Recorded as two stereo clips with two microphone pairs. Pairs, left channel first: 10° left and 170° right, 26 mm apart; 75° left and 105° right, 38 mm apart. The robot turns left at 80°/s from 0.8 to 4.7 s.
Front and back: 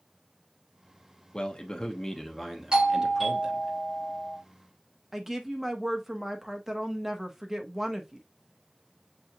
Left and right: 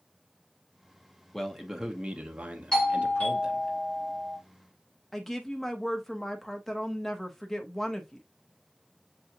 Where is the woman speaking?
140° left, 0.8 m.